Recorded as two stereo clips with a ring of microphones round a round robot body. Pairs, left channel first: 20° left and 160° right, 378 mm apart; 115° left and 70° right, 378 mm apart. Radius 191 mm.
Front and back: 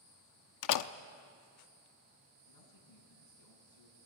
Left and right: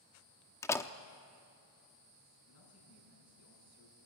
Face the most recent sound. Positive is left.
turn(degrees=60)